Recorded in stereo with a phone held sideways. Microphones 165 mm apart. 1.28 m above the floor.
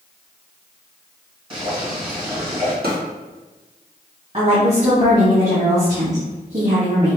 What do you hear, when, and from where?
1.5 s boiling: 35° right (ahead or behind), 1.7 m
2.8 s a drawer: 70° right (ahead or behind), 1.5 m
4.3 s a woman speaking: 40° right (ahead or behind), 2.0 m